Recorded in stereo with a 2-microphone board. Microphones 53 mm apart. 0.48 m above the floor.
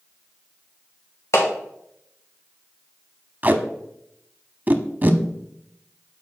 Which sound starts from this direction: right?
Tape being pulled, at 3.4 s.